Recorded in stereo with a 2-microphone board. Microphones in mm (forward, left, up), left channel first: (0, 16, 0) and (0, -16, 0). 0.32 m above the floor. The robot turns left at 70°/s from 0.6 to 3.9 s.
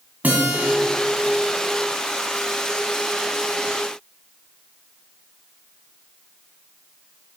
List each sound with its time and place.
0.2 s a guitar: 65° right (ahead or behind), 1.9 m; by 0.7 s 60° right (ahead or behind), 1.9 m